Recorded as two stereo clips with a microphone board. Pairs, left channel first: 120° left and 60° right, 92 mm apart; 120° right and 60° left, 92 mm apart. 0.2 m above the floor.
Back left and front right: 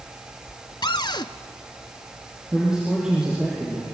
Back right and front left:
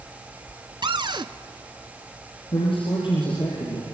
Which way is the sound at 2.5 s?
145° right.